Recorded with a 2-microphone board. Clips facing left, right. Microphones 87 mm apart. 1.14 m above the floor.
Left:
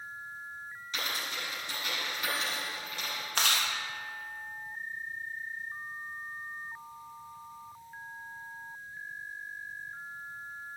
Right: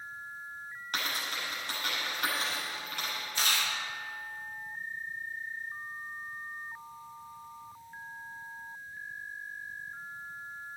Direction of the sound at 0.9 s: 55° right (ahead or behind).